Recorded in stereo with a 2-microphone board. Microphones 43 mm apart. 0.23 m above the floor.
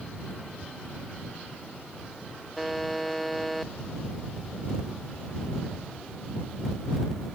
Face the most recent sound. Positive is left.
turn(degrees=0)  # may be behind; listen again after turning